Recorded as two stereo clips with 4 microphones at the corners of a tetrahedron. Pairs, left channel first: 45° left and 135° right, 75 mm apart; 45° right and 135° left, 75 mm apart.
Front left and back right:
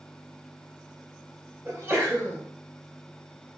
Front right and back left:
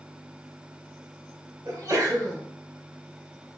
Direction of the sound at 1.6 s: 160° left.